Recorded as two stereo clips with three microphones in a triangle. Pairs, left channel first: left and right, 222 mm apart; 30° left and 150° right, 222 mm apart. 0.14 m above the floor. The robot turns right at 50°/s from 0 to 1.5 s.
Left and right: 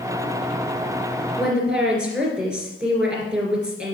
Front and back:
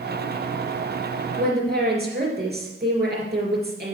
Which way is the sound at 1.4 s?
Straight behind.